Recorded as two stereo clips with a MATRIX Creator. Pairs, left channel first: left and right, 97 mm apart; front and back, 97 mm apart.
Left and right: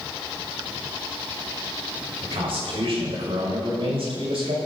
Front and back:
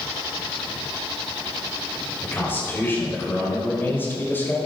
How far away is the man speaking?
About 5 m.